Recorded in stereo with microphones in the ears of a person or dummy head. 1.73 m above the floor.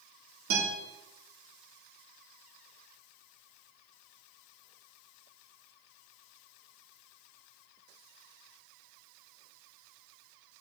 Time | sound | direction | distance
0.5 | a guitar | 75° right (ahead or behind) | 3 m